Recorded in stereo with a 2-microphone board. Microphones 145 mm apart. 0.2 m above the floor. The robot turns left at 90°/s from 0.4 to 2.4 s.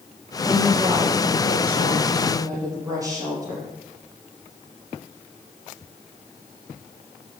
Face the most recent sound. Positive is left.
turn(degrees=-155)